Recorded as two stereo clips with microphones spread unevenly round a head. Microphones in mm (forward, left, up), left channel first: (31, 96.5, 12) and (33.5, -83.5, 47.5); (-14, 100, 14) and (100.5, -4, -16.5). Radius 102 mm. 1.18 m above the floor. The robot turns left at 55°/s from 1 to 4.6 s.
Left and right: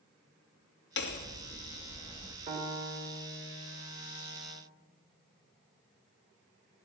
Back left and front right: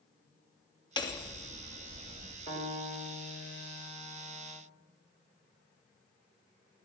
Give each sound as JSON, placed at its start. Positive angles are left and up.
{"t": 1.0, "sound": "hammering", "azimuth_deg": 75, "distance_m": 2.0}
{"t": 2.5, "sound": "a piano", "azimuth_deg": -145, "distance_m": 2.0}